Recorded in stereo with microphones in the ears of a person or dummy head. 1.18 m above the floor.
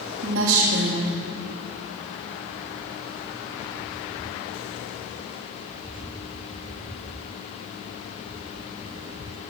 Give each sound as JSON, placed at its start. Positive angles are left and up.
{"t": 0.2, "sound": "a woman speaking", "side_deg": -80, "distance_m": 1.7}